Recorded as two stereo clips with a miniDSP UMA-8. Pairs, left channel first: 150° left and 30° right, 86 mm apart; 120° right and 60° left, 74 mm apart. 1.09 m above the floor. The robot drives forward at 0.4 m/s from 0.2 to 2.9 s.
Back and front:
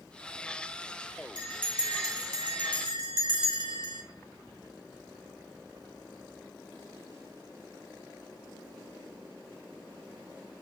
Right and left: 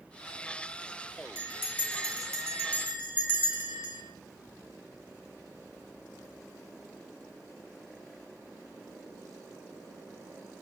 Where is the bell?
Straight ahead, 2.0 m.